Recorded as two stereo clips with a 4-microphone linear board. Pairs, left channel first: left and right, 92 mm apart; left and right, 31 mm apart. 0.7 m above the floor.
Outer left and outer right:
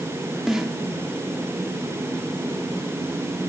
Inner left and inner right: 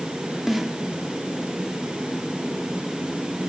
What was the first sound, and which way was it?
A snare drum, 5° right (ahead or behind).